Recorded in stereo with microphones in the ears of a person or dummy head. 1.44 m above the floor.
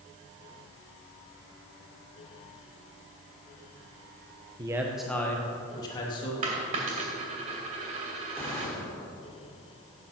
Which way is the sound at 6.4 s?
35° right (ahead or behind).